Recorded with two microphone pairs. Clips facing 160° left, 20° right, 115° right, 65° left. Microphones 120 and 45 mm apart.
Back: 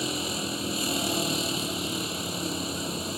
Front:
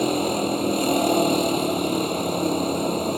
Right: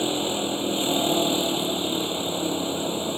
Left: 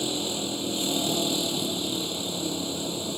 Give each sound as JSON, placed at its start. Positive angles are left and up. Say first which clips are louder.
{"t": 0.0, "sound": "a vehicle", "louder": "front 10 dB, right 4 dB", "azimuth_deg": -55}